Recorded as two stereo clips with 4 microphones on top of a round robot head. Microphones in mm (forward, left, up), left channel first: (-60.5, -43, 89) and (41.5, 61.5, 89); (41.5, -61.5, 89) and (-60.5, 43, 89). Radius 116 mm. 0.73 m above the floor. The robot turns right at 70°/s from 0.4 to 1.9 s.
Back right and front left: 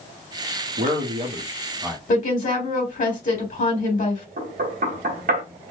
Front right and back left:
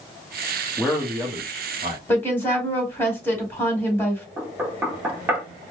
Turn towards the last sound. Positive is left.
turn(degrees=60)